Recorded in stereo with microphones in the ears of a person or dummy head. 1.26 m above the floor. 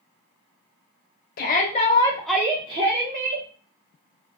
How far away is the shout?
About 0.6 m.